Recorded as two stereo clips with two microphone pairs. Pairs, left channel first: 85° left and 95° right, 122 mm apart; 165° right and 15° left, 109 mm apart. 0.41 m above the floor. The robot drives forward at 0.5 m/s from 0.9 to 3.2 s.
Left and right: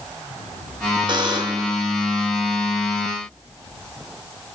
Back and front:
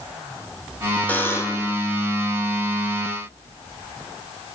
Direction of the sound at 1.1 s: 100° right.